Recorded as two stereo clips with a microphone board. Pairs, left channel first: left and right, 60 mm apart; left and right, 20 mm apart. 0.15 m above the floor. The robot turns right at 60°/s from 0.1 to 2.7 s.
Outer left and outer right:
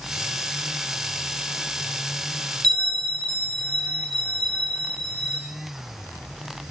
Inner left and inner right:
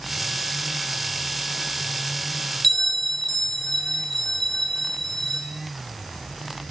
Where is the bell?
10° left (ahead or behind), 1.6 m; by 5.4 s 15° left (ahead or behind), 1.6 m.